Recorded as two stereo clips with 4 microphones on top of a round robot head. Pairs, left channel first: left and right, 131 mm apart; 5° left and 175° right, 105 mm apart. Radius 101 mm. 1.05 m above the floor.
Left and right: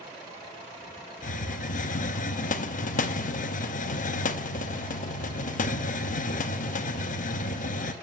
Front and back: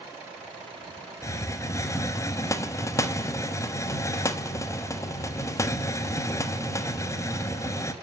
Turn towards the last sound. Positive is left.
turn(degrees=65)